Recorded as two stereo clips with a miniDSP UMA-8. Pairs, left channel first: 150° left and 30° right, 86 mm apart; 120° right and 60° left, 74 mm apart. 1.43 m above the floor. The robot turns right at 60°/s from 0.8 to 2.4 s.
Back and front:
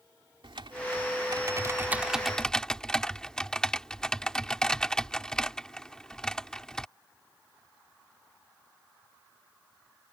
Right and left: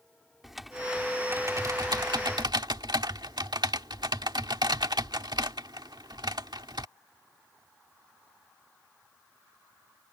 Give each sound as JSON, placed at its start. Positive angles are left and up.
{"t": 0.4, "sound": "typing on a keyboard", "azimuth_deg": -25}